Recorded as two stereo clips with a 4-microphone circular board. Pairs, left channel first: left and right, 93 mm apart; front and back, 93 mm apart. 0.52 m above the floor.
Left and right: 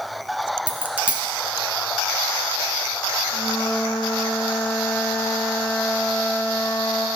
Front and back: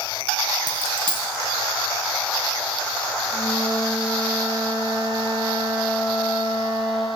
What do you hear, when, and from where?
0.7 s a dropped coin: 165° right, 1.2 m
3.3 s a flute: 155° left, 2.5 m